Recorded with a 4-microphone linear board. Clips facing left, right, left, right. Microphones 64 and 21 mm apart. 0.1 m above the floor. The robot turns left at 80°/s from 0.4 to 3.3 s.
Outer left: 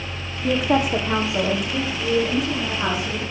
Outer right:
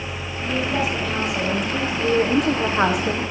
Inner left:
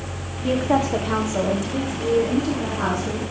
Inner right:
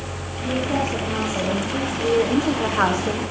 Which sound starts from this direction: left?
A woman speaking, at 0.4 s.